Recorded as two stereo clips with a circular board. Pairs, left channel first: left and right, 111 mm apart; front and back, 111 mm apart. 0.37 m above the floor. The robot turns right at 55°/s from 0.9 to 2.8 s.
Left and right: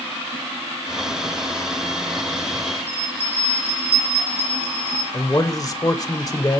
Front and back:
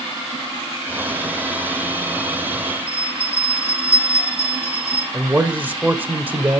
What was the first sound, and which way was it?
A bell, 65° left.